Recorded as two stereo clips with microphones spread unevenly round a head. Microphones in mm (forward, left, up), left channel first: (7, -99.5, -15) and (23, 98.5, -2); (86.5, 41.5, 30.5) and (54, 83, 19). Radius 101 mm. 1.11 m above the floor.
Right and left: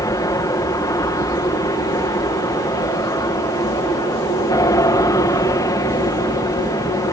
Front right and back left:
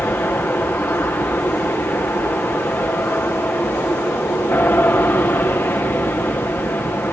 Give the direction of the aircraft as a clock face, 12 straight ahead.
1 o'clock.